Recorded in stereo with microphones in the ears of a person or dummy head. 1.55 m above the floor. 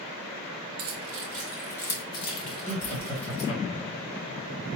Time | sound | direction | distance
0.8 | keys jangling | 35° right (ahead or behind) | 0.8 m
2.6 | laughter | 20° left (ahead or behind) | 3 m